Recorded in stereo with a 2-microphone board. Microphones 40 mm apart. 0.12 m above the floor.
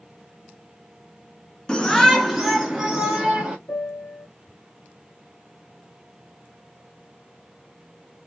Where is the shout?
20° left (ahead or behind), 1.2 m; by 3.6 s 15° right (ahead or behind), 2.5 m.